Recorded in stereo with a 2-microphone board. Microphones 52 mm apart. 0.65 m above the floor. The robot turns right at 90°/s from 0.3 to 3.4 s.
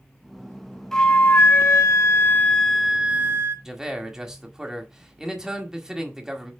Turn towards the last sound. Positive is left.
turn(degrees=-10)  # may be behind; listen again after turning